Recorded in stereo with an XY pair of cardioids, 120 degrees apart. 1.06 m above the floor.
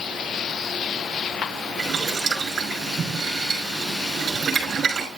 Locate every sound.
1.8 s boiling: 40° right, 6 m